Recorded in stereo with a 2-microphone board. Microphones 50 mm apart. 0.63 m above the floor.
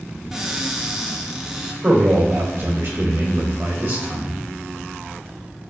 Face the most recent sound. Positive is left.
turn(degrees=-65)  # may be behind; listen again after turning